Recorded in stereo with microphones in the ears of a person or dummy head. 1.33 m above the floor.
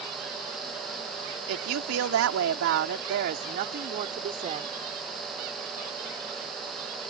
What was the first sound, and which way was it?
A woman speaking, 85° right.